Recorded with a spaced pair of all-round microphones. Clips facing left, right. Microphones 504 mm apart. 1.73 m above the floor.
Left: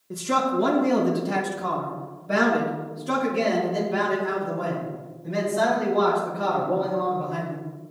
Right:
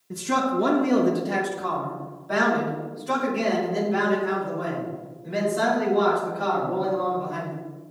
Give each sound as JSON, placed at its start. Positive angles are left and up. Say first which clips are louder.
{"t": 0.1, "sound": "a man speaking", "louder": "even", "side_deg": -15, "distance_m": 1.3}